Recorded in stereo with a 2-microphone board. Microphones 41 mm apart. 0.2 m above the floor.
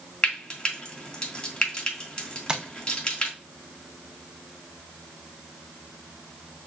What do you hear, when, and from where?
0.2 s frying: 20° left (ahead or behind), 1.6 m
2.5 s tapping: 20° right (ahead or behind), 0.6 m